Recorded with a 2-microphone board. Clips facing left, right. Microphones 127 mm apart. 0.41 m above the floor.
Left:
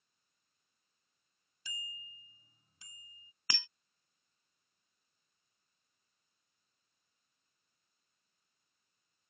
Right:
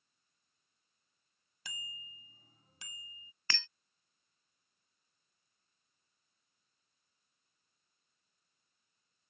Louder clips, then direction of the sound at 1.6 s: Even; 70° right (ahead or behind).